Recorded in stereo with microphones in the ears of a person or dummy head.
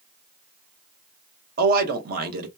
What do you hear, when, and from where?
1.6 s a man speaking: 60° right (ahead or behind), 0.8 m